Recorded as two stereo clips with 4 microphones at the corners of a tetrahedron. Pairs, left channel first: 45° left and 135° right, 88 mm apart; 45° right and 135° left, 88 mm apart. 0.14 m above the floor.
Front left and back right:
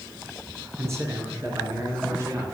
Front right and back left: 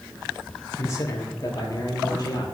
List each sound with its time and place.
0.8 s a man speaking: 90° right, 1.9 m; by 2.5 s 80° right, 3 m